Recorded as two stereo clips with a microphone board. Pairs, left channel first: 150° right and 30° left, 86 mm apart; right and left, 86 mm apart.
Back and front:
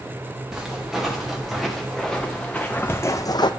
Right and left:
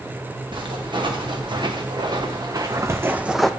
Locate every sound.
0.5 s footsteps: 115° left, 2 m; by 3.5 s 175° right, 0.5 m